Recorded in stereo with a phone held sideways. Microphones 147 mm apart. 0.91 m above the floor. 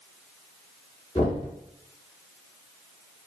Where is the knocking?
40° left (ahead or behind), 1.3 m.